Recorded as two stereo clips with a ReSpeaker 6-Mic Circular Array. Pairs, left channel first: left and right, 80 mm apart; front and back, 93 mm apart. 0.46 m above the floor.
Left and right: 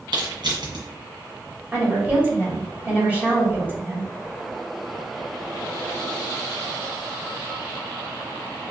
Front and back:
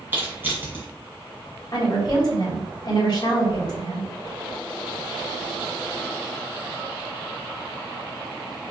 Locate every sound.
0.1 s crushing: 110° right, 1.8 m
1.7 s a woman speaking: 25° right, 2 m